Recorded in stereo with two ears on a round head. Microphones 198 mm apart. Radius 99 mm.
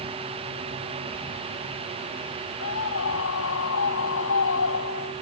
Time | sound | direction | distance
2.6 | a scream | 60° left (ahead or behind) | ?